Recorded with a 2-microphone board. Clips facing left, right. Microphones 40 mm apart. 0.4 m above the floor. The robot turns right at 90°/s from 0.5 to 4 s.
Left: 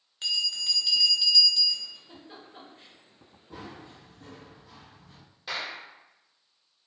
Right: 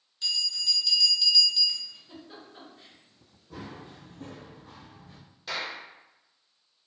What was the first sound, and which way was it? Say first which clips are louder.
A bell: left 1 dB; 105° left.